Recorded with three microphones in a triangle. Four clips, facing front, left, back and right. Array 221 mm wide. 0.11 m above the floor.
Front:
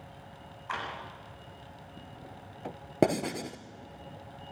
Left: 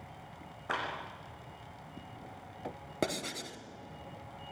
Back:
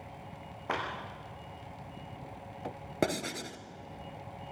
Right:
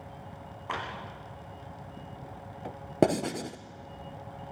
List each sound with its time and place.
0.7 s a clap: 165° left, 6.5 m
3.0 s writing: 60° right, 1.2 m